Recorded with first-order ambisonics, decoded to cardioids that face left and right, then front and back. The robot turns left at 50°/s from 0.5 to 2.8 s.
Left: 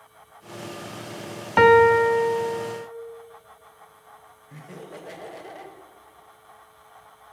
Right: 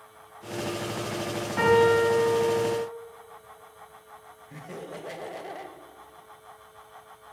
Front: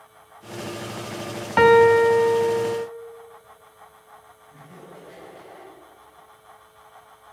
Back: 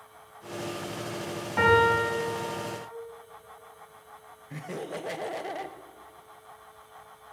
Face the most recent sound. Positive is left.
turn(degrees=-175)